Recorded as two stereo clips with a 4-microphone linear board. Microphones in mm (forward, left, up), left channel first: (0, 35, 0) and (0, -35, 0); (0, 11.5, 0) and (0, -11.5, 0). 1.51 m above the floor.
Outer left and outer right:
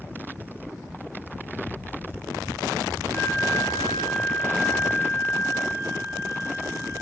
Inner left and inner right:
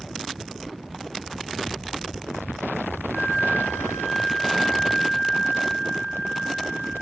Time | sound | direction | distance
3.1 | a flute | 30° left (ahead or behind) | 3 m